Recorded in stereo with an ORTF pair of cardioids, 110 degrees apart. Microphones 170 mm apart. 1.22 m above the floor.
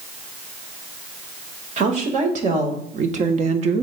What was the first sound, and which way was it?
A woman speaking, 50° right.